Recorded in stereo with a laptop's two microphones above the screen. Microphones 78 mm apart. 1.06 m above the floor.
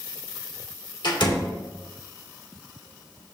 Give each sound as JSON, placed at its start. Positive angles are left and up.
{"t": 1.0, "sound": "a door slam", "side_deg": 70, "distance_m": 1.9}